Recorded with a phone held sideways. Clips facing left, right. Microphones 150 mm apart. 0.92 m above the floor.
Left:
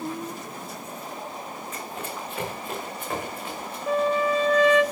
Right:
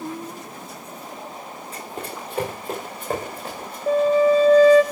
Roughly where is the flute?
Right.